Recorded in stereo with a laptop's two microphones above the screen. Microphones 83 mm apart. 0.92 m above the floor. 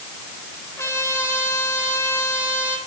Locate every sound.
0.8 s a trumpet: 40° left (ahead or behind), 2.5 m